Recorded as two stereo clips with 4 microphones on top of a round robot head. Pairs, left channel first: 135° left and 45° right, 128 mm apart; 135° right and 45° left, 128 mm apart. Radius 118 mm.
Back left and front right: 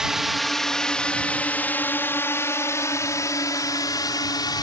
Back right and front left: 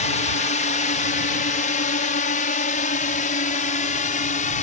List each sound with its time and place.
0.0 s a drone: 130° right; by 4.6 s 165° right